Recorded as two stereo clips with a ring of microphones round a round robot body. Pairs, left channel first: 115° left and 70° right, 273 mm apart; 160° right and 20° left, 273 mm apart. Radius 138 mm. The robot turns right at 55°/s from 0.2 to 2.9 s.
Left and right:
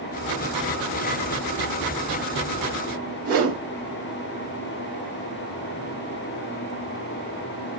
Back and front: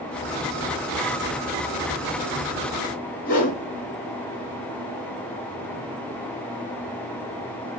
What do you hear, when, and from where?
3.2 s a whoosh: 100° right, 1.7 m